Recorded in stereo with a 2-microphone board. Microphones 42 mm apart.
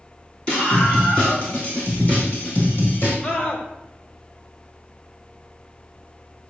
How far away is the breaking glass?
No breaking glass in this recording.